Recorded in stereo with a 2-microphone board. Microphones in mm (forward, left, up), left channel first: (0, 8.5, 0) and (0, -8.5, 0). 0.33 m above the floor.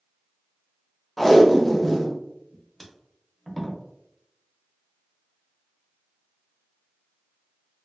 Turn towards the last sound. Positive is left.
turn(degrees=5)  # may be behind; listen again after turning